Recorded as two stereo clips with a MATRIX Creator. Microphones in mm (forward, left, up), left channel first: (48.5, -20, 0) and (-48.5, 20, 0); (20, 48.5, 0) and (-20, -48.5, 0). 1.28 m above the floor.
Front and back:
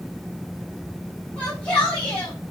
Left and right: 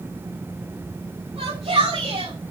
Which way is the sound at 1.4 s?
100° right.